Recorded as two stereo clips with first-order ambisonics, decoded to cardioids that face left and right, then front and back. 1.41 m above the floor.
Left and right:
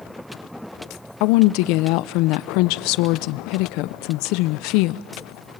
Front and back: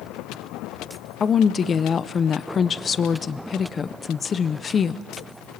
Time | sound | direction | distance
1.2 | a woman speaking | 70° left | 0.6 m